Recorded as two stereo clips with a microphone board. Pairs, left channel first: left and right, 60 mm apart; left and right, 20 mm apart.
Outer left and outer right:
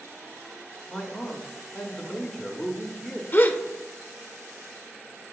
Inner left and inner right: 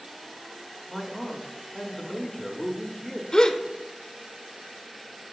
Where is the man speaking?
Centre (ahead or behind), 0.8 m.